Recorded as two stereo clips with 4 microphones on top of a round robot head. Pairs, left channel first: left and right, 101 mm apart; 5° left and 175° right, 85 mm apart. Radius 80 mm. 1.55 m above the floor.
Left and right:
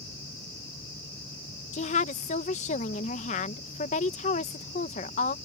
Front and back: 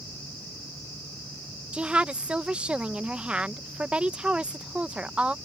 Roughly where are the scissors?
I don't hear scissors.